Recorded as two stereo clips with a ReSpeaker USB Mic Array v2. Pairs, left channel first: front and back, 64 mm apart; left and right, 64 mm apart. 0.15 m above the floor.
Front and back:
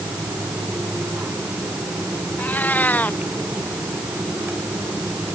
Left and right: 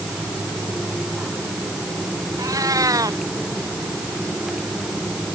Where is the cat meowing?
65° right.